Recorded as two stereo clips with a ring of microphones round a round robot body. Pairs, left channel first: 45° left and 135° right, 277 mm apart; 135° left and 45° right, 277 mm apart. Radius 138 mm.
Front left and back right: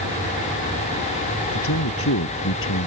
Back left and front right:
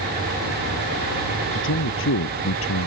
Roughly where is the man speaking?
Left.